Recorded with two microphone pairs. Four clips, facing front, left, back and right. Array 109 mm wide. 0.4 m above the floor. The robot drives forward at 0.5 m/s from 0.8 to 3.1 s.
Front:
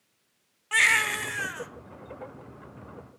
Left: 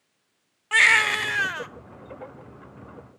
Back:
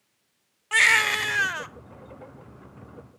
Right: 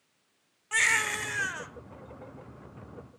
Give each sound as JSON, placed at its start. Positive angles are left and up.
{"t": 0.7, "sound": "a baby crying", "azimuth_deg": 120, "distance_m": 0.6}